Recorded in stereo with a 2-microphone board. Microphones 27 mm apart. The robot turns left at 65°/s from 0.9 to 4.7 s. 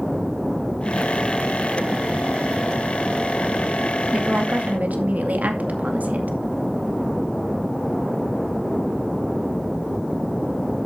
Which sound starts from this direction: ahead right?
A woman speaking, at 4.1 s.